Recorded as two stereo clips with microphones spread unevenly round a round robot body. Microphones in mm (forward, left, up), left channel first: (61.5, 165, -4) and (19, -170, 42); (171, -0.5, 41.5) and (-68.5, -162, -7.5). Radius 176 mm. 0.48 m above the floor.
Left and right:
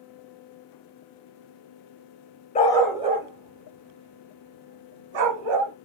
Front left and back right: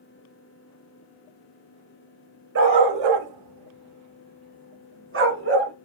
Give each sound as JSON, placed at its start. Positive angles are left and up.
{"t": 2.5, "sound": "a dog barking", "azimuth_deg": 155, "distance_m": 0.6}